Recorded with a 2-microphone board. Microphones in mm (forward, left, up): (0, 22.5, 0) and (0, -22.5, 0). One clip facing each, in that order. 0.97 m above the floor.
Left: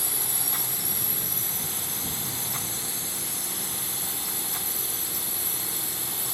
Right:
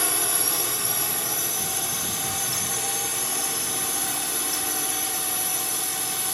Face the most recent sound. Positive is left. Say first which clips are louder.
# right 8 dB
turn(degrees=-70)  # may be behind; listen again after turning